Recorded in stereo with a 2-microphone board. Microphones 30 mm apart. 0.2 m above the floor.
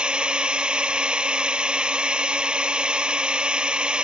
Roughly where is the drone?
Right.